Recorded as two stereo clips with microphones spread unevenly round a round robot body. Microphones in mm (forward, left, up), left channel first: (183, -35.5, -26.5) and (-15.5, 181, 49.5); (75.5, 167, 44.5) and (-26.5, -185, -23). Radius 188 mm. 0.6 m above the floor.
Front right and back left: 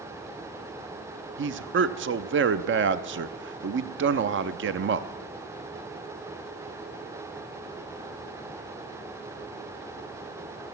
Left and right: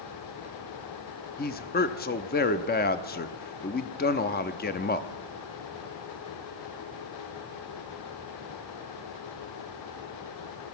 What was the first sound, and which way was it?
A man speaking, 125° left.